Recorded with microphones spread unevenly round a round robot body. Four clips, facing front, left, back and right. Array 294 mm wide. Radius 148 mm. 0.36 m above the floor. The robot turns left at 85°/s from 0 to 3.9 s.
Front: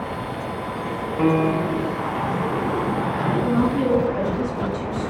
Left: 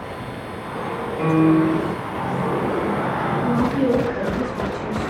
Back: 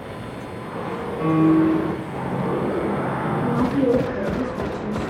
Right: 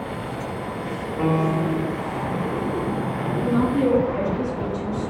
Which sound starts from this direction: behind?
A woman speaking, at 3.4 s.